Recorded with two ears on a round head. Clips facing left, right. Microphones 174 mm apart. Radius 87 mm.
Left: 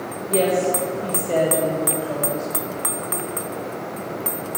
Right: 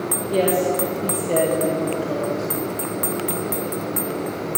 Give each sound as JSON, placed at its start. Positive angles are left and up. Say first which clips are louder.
{"t": 0.3, "sound": "a woman speaking", "louder": "even", "side_deg": -10, "distance_m": 1.2}